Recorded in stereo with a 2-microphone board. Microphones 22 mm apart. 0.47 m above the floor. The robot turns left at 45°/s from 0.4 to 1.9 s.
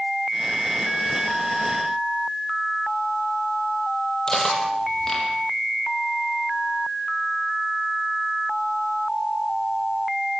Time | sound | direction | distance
4.3 | cutlery clinking | 25° left (ahead or behind) | 8.5 m